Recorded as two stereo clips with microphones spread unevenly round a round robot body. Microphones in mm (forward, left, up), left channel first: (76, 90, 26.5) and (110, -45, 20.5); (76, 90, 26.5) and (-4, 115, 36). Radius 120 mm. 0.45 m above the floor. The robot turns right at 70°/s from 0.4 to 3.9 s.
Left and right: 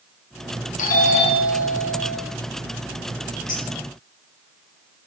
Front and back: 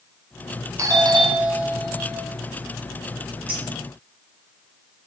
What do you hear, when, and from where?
0.8 s a doorbell: 115° left, 2 m; by 2.2 s 150° right, 2 m
3.5 s a clink: 165° right, 5 m; by 3.6 s 160° right, 5 m